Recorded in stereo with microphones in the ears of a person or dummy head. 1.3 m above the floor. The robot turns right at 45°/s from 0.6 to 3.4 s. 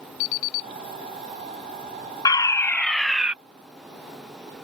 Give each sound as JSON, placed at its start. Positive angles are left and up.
{"t": 0.2, "sound": "an alarm clock", "side_deg": 70}
{"t": 2.2, "sound": "a fire alarm", "azimuth_deg": 140}